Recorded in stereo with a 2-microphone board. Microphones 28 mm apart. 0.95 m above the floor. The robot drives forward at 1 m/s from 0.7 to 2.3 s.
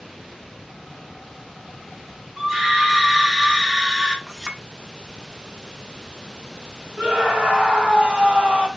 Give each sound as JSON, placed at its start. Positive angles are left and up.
{"t": 2.4, "sound": "a scream", "side_deg": 10, "distance_m": 1.7}
{"t": 4.3, "sound": "a clink", "side_deg": -5, "distance_m": 1.0}
{"t": 7.0, "sound": "a scream", "side_deg": -40, "distance_m": 2.5}